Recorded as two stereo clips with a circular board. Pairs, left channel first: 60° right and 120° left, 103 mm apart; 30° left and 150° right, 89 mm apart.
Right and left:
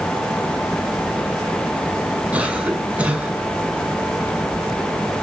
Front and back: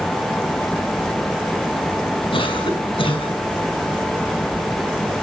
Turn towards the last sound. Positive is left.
turn(degrees=45)